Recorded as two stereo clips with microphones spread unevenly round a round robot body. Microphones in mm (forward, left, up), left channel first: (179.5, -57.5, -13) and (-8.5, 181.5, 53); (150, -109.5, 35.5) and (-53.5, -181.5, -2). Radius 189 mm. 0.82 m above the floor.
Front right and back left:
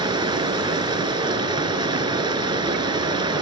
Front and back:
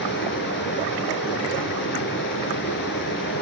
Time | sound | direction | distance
0.0 | running water | 60° left | 1.6 m